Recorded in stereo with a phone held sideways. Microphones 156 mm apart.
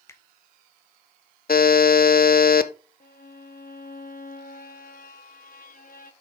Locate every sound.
0.1 s a finger snap: 20° left (ahead or behind), 0.9 m
1.5 s a buzzer: 70° left (ahead or behind), 0.7 m
3.0 s a violin: 65° left (ahead or behind), 1.1 m